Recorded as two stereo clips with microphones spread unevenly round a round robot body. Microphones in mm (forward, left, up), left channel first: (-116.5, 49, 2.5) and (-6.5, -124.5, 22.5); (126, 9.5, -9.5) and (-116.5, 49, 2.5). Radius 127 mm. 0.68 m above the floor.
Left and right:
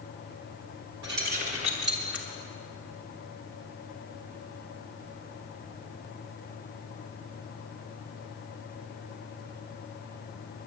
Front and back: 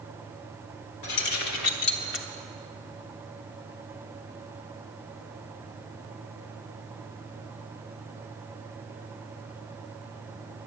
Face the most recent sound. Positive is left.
turn(degrees=35)